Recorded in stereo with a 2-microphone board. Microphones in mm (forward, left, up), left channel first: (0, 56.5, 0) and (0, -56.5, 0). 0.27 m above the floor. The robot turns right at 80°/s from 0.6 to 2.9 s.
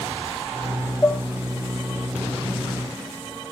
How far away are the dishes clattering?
About 0.8 m.